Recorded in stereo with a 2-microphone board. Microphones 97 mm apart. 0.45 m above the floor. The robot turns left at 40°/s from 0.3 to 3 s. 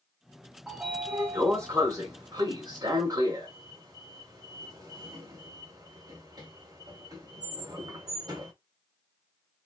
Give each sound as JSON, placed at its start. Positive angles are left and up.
{"t": 0.7, "sound": "a sliding door", "side_deg": -5, "distance_m": 1.6}